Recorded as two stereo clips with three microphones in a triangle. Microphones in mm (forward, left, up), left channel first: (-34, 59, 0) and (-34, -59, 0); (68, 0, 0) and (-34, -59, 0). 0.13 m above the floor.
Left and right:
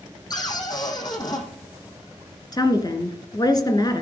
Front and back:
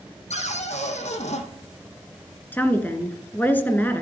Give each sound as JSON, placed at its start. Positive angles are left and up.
{"t": 0.3, "sound": "a cupboard door", "azimuth_deg": 35, "distance_m": 2.5}
{"t": 2.5, "sound": "a woman speaking", "azimuth_deg": 90, "distance_m": 1.8}